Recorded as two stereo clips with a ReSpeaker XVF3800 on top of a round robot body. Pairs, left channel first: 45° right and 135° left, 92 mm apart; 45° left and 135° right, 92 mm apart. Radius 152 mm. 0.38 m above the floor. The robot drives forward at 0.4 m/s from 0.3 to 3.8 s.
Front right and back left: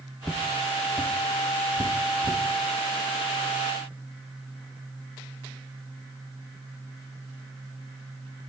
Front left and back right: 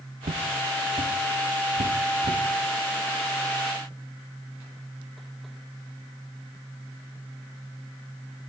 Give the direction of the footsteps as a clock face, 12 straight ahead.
4 o'clock.